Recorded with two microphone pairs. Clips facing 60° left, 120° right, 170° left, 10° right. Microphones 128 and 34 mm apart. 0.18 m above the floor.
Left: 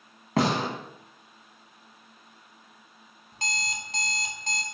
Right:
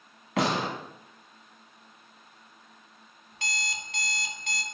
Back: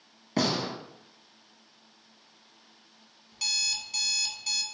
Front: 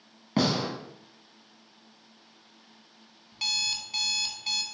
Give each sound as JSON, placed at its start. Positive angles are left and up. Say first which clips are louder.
{"t": 0.4, "sound": "a gunshot", "louder": "left 2 dB, front 2 dB", "azimuth_deg": 50, "distance_m": 1.4}
{"t": 3.3, "sound": "an alarm clock", "louder": "left 2 dB, front 1 dB", "azimuth_deg": 50, "distance_m": 0.5}